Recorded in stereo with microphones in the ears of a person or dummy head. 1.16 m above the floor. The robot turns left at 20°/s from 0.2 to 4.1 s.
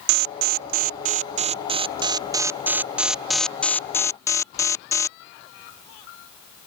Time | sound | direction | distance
0.1 | an alarm | 115° right | ?